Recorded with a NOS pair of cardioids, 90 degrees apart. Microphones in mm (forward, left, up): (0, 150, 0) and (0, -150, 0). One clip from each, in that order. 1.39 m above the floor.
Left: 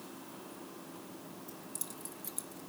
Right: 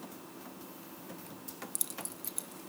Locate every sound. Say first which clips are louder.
1.5 s keys jangling: right 6 dB; 60° right, 1.9 m; by 2.6 s straight ahead, 1.2 m